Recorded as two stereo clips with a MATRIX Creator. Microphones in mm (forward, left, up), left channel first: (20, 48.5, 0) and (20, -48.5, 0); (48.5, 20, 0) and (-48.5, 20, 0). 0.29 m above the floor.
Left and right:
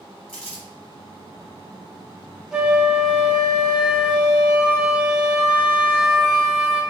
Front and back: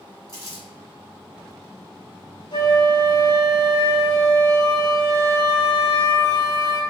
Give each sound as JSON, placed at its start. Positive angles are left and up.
{"t": 0.3, "sound": "crumpling", "azimuth_deg": 5, "distance_m": 1.5}
{"t": 2.5, "sound": "a flute", "azimuth_deg": -10, "distance_m": 0.7}